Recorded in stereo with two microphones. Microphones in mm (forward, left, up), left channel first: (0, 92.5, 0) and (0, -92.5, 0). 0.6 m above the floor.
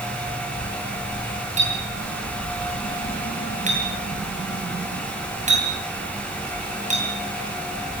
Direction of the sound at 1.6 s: 40° right (ahead or behind).